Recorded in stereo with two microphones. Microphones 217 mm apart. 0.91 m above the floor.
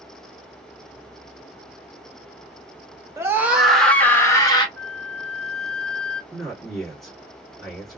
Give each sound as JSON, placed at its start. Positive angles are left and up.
{"t": 3.2, "sound": "a scream", "side_deg": -15, "distance_m": 1.1}
{"t": 4.8, "sound": "a flute", "side_deg": 10, "distance_m": 1.1}
{"t": 6.3, "sound": "a man speaking", "side_deg": 0, "distance_m": 1.6}